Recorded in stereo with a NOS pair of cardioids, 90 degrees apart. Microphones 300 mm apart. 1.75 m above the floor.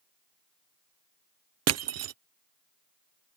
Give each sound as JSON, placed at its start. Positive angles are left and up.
{"t": 1.7, "sound": "crushing", "azimuth_deg": -55}